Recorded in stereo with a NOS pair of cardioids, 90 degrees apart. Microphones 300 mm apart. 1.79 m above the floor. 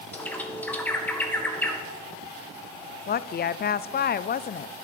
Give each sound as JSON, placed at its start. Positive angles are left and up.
{"t": 0.1, "sound": "a bird", "azimuth_deg": 5, "distance_m": 1.9}
{"t": 3.1, "sound": "a woman speaking", "azimuth_deg": 35, "distance_m": 0.5}